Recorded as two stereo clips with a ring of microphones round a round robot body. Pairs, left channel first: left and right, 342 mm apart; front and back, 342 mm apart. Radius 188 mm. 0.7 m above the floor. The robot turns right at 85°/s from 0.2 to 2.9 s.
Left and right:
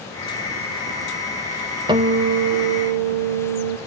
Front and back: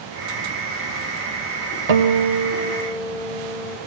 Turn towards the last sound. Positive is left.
turn(degrees=-80)